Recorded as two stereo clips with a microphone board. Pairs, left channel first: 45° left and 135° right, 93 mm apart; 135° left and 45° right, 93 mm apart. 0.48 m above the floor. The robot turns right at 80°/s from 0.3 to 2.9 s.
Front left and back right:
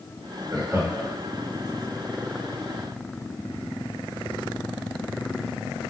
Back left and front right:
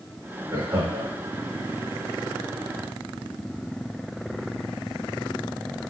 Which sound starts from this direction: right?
Laughter, at 0.5 s.